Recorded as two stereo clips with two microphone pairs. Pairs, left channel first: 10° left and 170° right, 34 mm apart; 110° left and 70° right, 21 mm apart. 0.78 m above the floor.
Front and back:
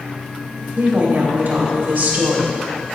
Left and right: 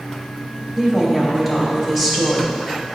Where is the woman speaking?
145° right, 2.5 m.